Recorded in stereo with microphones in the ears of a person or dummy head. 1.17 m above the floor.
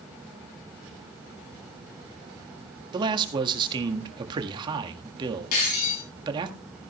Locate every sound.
2.9 s a man speaking: 25° right (ahead or behind), 1.7 m
5.5 s breaking glass: 50° left (ahead or behind), 6 m